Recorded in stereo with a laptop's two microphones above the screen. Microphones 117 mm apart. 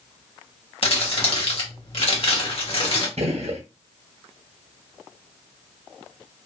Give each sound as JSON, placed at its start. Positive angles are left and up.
{"t": 0.8, "sound": "crumpling", "side_deg": 55, "distance_m": 0.9}
{"t": 3.2, "sound": "a gunshot", "side_deg": -65, "distance_m": 0.6}